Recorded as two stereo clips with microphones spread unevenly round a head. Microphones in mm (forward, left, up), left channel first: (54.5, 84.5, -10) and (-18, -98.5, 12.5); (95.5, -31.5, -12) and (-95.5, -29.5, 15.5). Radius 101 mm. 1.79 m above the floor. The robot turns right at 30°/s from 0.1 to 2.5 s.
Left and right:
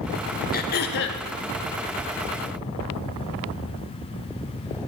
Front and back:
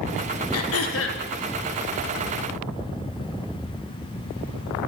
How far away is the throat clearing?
About 1.5 m.